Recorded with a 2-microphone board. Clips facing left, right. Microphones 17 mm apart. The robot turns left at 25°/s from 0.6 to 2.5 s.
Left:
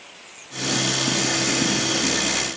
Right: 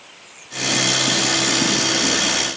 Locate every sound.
Only background noise.